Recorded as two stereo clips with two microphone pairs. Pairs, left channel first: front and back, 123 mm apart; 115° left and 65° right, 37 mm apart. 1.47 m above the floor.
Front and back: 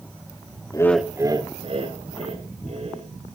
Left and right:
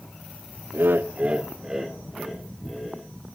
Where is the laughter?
60° right, 0.8 m; by 3.1 s 155° right, 3.5 m.